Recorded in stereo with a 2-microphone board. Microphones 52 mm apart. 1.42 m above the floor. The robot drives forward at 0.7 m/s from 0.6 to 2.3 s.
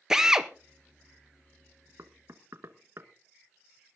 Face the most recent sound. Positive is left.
turn(degrees=-50)  # may be behind; listen again after turning